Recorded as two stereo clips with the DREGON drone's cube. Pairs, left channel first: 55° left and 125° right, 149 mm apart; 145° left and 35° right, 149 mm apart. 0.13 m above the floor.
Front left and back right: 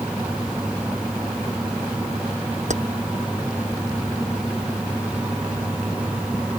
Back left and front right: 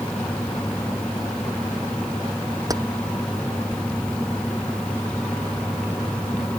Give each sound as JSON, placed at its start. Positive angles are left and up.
{"t": 2.7, "sound": "keys jangling", "azimuth_deg": -95}